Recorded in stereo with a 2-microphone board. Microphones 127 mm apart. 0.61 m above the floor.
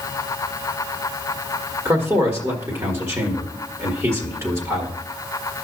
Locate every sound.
1.9 s a man speaking: 25° right (ahead or behind), 1.8 m